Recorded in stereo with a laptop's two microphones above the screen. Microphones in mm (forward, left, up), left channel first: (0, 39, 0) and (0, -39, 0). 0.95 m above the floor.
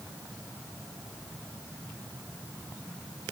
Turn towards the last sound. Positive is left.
No sound to turn to.